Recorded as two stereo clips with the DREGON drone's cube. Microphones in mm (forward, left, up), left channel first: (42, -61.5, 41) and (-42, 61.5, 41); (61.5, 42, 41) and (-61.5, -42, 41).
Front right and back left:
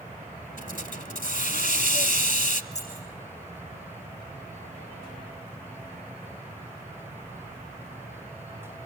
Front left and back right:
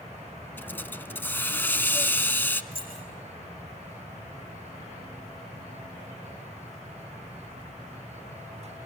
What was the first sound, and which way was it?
A hiss, 40° right.